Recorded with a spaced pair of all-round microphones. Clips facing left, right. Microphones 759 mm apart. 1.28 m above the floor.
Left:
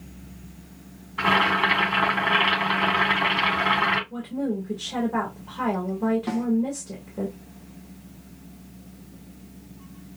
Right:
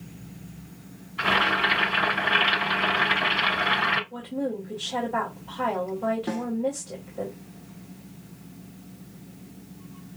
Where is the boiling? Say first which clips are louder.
Left 3 dB; 75° left (ahead or behind), 1.8 m.